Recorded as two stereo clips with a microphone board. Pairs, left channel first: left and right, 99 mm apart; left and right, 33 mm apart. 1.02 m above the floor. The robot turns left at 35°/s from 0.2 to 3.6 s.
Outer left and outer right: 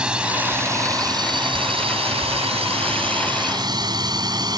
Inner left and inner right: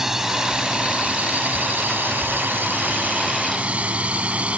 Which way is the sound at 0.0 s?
10° right (ahead or behind).